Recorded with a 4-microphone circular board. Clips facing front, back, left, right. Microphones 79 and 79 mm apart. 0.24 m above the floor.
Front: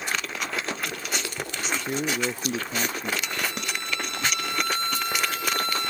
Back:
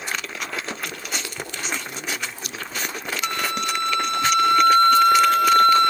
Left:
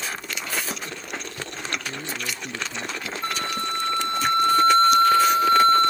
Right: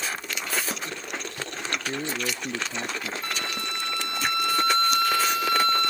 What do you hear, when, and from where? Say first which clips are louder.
1.9 s a man speaking: front 4 dB, right 2 dB; 35° right; by 3.1 s 25° right
3.2 s a flute: back 6 dB, left 4 dB; 150° left